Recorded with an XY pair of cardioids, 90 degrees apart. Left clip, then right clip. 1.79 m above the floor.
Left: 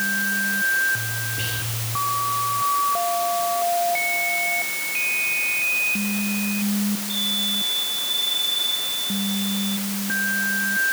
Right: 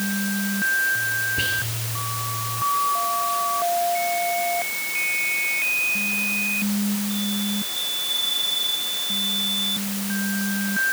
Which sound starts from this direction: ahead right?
Whispering, at 1.4 s.